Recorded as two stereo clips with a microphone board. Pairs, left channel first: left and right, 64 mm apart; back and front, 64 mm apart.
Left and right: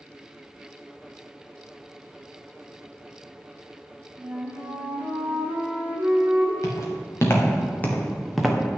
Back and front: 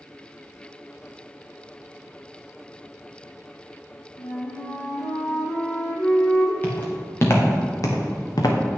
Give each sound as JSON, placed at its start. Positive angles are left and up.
{"t": 4.2, "sound": "a flute", "azimuth_deg": -155, "distance_m": 2.0}
{"t": 6.6, "sound": "footsteps", "azimuth_deg": 125, "distance_m": 3.0}